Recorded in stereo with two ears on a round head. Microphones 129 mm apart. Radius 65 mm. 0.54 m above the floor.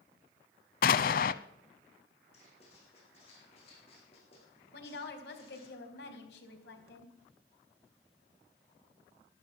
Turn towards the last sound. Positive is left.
turn(degrees=75)  # may be behind; listen again after turning